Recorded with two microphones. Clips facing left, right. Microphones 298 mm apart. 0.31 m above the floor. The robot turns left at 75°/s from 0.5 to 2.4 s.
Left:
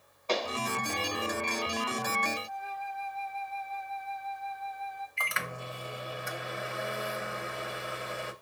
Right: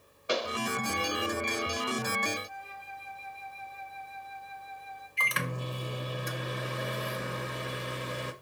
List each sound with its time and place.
0.3 s a pop: 15° right (ahead or behind), 1.0 m; by 0.6 s 10° right (ahead or behind), 1.0 m
2.5 s a flute: 55° left (ahead or behind), 4.5 m
5.2 s a microwave: 45° right (ahead or behind), 0.9 m